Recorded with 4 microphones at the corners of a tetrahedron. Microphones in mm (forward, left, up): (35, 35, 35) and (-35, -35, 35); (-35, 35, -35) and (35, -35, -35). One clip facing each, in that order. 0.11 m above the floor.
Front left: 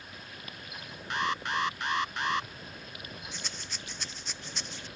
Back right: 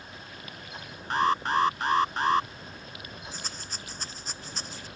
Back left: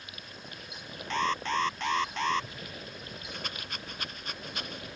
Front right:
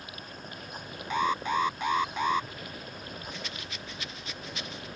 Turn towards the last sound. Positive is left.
turn(degrees=175)